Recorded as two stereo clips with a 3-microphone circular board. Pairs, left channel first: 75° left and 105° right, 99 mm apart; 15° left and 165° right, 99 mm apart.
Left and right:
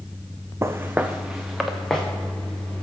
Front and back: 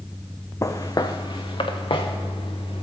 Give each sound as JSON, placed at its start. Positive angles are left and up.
{"t": 0.6, "sound": "footsteps", "azimuth_deg": -45, "distance_m": 0.5}